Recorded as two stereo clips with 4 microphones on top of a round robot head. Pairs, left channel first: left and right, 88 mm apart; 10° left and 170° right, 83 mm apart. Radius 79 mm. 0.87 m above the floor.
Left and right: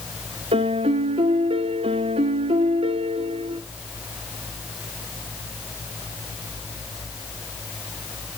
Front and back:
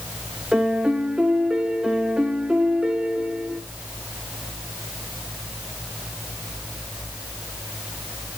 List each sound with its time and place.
0.5 s a piano: 85° right, 1.0 m